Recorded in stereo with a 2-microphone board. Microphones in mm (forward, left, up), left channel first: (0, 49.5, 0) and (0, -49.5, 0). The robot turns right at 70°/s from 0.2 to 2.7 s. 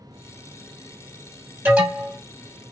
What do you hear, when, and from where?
1.6 s an alarm: 25° right, 1.0 m; by 2.2 s 15° left, 1.0 m